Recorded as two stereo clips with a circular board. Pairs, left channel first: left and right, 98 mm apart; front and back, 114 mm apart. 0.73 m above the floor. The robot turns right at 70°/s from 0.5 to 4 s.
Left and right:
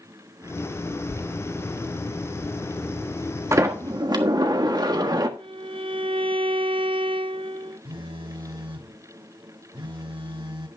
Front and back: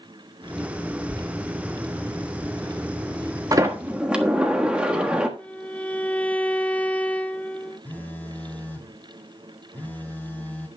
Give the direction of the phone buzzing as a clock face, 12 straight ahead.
2 o'clock.